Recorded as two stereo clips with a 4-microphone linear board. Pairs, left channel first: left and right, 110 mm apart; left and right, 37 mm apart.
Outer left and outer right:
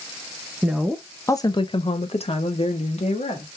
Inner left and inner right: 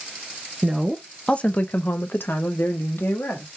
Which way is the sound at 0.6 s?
10° right (ahead or behind).